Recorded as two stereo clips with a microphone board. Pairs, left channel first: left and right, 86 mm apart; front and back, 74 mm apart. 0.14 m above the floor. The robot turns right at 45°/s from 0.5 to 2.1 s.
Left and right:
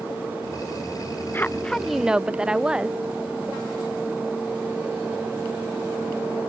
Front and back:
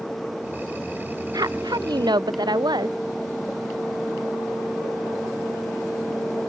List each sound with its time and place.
1.3 s a woman speaking: 155° left; by 3.0 s 170° right